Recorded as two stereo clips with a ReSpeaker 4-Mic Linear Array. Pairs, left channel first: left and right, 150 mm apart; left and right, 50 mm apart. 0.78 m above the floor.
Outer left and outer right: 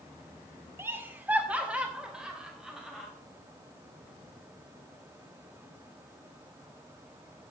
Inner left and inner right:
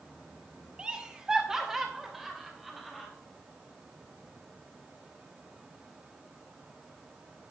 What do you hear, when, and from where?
0.8 s laughter: 15° right (ahead or behind), 1.8 m; by 3.1 s 5° right (ahead or behind), 4.5 m